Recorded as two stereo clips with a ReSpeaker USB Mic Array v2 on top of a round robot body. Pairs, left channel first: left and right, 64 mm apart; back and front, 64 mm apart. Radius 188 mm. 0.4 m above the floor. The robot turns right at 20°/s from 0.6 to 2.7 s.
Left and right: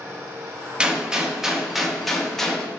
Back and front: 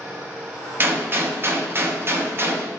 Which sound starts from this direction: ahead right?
A gunshot, at 0.8 s.